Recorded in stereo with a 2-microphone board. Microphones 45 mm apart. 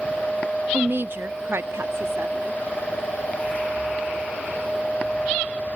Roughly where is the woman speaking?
Right.